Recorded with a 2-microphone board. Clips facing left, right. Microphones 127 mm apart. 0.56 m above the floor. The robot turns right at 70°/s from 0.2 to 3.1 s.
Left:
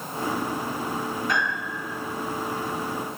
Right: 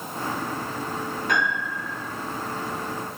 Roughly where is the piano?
Right.